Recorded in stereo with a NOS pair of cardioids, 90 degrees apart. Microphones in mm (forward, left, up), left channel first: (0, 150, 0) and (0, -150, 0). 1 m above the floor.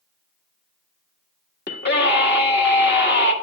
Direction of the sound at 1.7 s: 35° left.